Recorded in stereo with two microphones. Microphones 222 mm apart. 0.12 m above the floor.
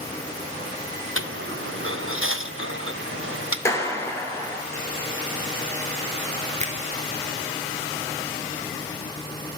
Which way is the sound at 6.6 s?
30° right (ahead or behind).